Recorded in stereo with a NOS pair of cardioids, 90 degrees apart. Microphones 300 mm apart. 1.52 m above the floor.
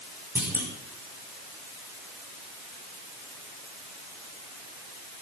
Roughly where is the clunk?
Ahead.